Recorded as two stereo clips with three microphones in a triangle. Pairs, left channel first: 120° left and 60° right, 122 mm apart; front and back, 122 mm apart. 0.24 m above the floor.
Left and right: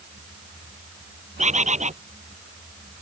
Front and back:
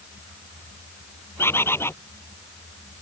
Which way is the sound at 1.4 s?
70° right.